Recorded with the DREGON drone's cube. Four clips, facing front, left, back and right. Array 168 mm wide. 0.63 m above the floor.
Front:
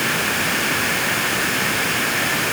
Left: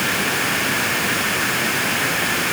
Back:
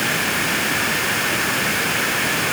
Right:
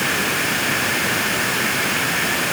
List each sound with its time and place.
Only background noise.